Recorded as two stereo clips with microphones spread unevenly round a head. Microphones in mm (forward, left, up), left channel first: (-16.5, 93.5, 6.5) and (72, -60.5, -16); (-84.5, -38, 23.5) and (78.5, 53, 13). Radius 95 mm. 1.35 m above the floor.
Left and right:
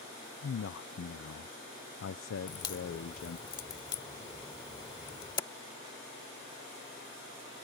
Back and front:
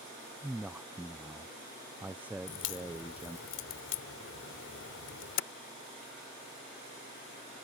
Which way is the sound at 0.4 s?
110° left.